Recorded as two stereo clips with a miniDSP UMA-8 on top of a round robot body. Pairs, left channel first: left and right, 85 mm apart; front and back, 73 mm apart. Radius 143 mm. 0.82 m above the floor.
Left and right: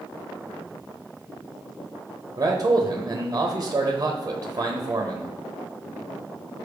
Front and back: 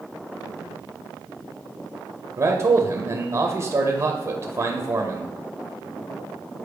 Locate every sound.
2.4 s a man speaking: 140° right, 0.9 m